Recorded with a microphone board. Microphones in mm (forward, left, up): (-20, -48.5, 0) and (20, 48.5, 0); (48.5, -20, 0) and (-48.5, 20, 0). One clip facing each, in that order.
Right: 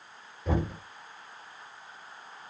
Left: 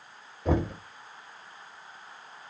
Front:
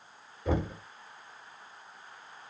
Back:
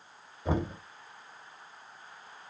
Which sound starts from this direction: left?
Knocking, at 0.5 s.